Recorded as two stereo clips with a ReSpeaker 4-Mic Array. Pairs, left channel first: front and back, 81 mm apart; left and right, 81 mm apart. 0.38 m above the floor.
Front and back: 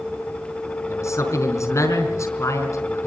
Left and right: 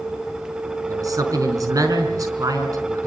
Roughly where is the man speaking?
Ahead right.